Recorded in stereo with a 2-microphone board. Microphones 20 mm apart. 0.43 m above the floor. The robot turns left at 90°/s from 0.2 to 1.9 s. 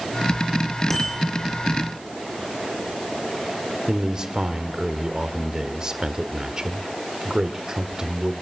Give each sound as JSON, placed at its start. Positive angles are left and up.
{"t": 0.9, "sound": "a bicycle bell", "side_deg": 10, "distance_m": 6.5}
{"t": 3.9, "sound": "a man speaking", "side_deg": -35, "distance_m": 1.5}